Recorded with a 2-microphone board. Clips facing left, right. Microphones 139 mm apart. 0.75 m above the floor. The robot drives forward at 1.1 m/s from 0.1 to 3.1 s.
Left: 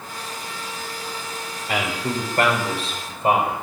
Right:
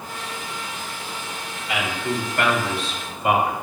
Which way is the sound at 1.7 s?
45° left (ahead or behind).